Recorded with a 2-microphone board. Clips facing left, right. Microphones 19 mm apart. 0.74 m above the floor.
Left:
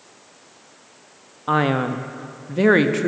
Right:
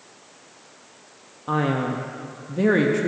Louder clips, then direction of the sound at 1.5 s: Left 4 dB; 35° left (ahead or behind).